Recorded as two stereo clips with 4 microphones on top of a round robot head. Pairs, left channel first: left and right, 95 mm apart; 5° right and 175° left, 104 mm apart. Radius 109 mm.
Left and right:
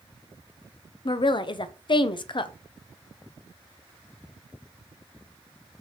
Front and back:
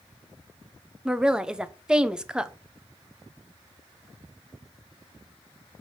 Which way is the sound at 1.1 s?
95° left.